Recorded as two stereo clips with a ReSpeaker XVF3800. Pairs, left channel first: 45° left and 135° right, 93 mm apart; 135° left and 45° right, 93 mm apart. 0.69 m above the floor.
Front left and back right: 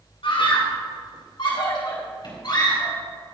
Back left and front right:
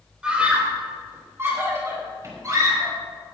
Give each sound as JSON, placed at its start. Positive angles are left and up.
{"t": 0.2, "sound": "a scream", "azimuth_deg": 35, "distance_m": 3.0}